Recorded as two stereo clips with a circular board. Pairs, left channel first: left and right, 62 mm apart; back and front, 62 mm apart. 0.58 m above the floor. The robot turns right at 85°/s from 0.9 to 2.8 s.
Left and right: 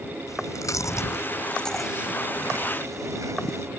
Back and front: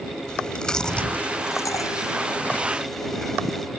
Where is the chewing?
100° left; by 3.7 s 95° right.